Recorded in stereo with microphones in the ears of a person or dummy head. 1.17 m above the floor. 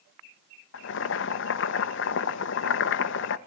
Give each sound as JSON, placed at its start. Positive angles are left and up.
{"t": 0.7, "sound": "boiling", "side_deg": 60, "distance_m": 1.1}